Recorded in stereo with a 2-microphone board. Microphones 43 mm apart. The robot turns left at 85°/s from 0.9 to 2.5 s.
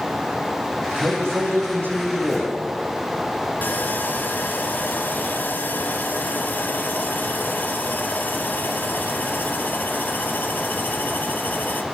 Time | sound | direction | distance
1.0 | a man speaking | 50° right | 9 m
3.6 | sawing | 45° left (ahead or behind) | 3 m